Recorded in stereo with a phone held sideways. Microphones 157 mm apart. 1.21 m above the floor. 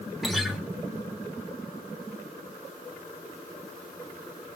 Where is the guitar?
Centre (ahead or behind), 1.1 m.